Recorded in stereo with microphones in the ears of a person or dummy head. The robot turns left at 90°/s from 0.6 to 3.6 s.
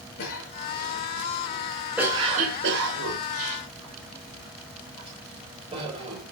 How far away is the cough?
About 7.5 m.